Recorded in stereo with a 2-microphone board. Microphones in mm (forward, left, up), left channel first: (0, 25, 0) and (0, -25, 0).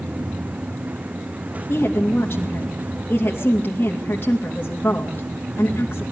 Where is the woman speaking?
40° left (ahead or behind), 3 m.